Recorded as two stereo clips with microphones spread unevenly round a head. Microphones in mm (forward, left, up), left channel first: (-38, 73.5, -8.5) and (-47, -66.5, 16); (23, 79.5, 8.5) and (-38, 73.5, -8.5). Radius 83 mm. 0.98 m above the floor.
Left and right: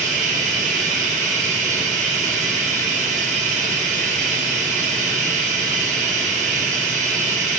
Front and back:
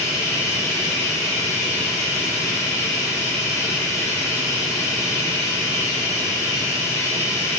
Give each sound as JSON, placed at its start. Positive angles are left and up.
{"t": 0.0, "sound": "running water", "azimuth_deg": -60, "distance_m": 0.7}